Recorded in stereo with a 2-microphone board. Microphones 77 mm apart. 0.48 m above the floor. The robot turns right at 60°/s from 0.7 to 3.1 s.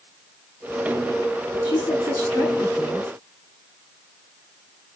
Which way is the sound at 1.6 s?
110° left.